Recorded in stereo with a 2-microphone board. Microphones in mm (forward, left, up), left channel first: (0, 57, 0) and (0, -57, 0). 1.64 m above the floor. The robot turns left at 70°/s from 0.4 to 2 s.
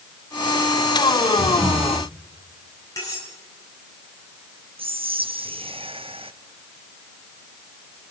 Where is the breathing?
125° right, 3.5 m; by 2.0 s 170° right, 3.5 m.